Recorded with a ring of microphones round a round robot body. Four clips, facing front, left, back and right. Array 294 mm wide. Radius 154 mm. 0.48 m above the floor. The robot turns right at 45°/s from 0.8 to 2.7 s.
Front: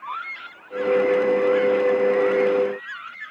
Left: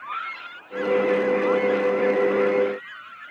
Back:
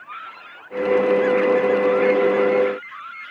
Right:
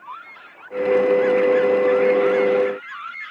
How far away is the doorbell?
I don't hear a doorbell.